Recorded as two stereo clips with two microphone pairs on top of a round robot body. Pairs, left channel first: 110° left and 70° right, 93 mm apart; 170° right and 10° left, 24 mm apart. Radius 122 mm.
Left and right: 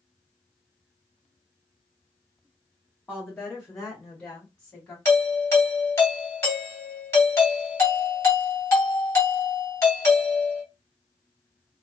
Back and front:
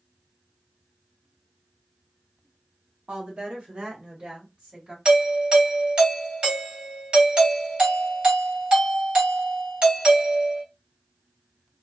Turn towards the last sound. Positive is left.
turn(degrees=50)